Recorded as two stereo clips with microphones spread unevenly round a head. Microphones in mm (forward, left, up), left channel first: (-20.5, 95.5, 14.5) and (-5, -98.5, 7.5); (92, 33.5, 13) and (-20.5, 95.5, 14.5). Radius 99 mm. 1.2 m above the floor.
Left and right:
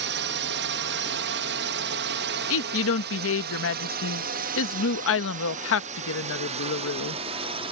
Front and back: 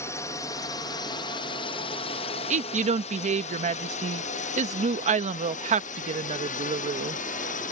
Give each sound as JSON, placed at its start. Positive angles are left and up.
{"t": 0.0, "sound": "a drone", "azimuth_deg": -100}
{"t": 2.5, "sound": "a woman speaking", "azimuth_deg": 120}